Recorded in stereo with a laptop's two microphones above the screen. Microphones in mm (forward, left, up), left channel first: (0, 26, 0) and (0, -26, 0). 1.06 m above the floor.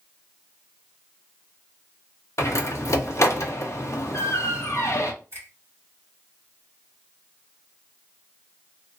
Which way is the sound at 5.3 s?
45° right (ahead or behind).